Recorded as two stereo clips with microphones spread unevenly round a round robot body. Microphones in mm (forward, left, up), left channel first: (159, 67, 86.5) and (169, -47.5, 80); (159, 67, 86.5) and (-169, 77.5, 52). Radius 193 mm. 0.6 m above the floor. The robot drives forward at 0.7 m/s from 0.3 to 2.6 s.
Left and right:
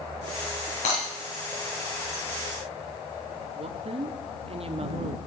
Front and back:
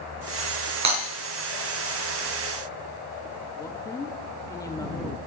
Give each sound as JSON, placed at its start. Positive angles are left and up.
{"t": 0.8, "sound": "breaking glass", "azimuth_deg": 140, "distance_m": 5.5}
{"t": 3.5, "sound": "a woman speaking", "azimuth_deg": -85, "distance_m": 0.9}